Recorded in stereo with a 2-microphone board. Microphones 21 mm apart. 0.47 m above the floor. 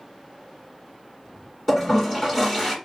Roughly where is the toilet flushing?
Centre.